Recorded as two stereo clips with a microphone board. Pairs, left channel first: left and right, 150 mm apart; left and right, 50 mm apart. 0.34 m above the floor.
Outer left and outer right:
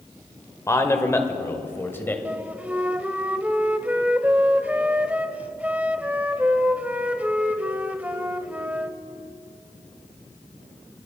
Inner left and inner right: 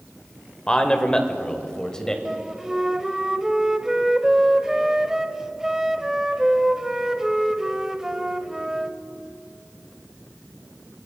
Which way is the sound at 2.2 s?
10° right (ahead or behind).